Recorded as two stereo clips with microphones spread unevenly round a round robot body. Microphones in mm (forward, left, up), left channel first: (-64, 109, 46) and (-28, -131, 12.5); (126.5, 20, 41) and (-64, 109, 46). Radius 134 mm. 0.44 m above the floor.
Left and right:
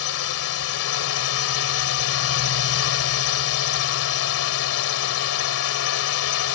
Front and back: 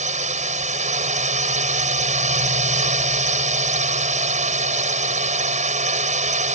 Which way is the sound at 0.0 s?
105° left.